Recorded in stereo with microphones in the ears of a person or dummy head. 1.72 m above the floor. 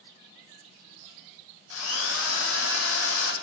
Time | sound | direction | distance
1.7 | a drill | 75° left (ahead or behind) | 1.5 m